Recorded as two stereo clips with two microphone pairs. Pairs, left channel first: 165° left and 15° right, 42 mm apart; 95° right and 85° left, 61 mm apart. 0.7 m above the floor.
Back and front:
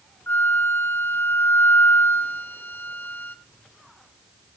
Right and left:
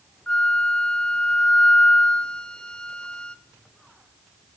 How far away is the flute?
About 0.5 m.